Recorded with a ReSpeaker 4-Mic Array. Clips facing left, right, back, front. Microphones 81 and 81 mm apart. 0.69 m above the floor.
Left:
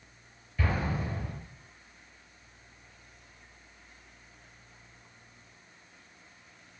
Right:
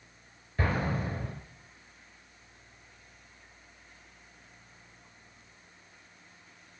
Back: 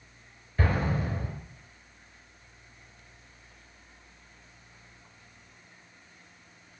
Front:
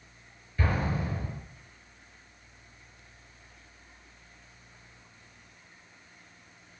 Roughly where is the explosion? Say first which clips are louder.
Right 1 dB, back 2 dB; behind right.